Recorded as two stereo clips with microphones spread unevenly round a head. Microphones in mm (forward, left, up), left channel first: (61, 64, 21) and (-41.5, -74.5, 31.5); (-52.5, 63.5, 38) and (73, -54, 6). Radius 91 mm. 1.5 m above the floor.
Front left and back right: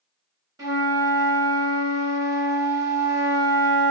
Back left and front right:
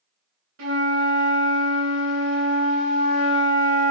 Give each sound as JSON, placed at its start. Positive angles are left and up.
{"t": 0.6, "sound": "a flute", "azimuth_deg": -60, "distance_m": 1.9}